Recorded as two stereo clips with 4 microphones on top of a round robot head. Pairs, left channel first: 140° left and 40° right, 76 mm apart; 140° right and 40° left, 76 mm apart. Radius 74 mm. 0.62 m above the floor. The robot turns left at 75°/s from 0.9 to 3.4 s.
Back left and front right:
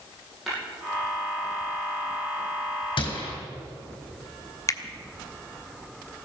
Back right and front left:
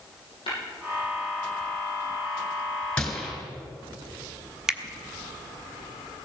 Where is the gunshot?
145° left, 4 m; by 3.4 s 115° left, 4 m.